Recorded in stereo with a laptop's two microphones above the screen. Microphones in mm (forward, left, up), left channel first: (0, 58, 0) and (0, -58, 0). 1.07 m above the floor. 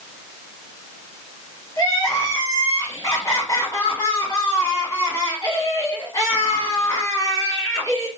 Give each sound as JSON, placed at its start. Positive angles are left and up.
{"t": 1.8, "sound": "crying", "side_deg": 35, "distance_m": 1.3}